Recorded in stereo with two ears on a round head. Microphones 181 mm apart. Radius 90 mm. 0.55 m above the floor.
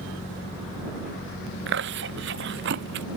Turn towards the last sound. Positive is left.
turn(degrees=-60)  # may be behind; listen again after turning